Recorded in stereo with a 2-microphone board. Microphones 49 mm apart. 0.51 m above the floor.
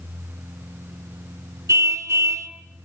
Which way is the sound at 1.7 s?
80° right.